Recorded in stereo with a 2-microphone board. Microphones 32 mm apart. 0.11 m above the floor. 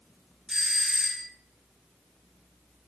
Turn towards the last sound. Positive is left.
turn(degrees=-15)  # may be behind; listen again after turning